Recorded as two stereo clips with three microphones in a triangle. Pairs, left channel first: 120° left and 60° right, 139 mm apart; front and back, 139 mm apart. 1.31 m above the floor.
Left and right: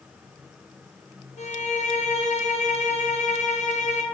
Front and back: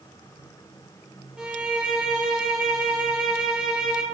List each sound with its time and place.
1.4 s a violin: 95° left, 0.5 m